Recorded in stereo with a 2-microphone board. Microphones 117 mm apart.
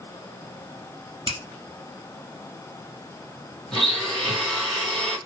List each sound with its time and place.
1.3 s a finger snap: 45° right (ahead or behind), 1.5 m
3.7 s a blender: centre (ahead or behind), 2 m